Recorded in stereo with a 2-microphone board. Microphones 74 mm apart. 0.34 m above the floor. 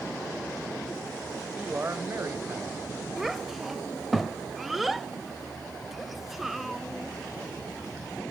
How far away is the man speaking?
About 1.0 m.